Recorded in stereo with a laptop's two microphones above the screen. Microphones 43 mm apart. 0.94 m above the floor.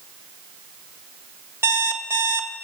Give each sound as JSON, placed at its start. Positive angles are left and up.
{"t": 1.6, "sound": "an alarm clock", "side_deg": -75, "distance_m": 1.0}